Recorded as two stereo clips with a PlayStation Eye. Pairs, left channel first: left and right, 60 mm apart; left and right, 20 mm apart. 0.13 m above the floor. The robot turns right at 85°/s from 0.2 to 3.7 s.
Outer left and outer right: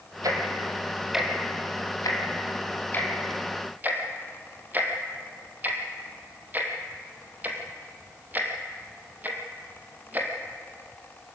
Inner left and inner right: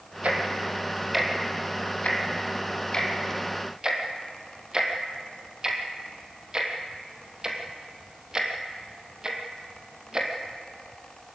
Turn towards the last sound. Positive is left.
turn(degrees=-30)  # may be behind; listen again after turning